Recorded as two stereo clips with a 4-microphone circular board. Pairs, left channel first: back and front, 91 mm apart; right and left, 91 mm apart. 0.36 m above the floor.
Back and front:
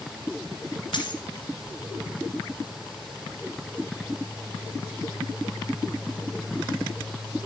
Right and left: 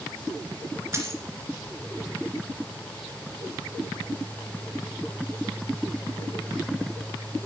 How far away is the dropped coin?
About 2 m.